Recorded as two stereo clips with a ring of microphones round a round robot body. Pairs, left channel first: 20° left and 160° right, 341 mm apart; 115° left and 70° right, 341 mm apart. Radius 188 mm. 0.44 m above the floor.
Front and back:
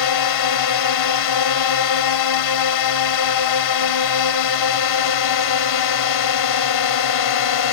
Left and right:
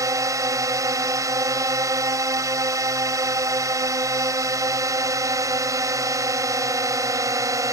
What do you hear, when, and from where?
0.0 s a drone: 10° left